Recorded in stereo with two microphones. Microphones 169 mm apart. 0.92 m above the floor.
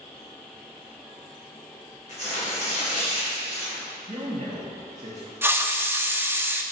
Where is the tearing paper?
45° left (ahead or behind), 3 m.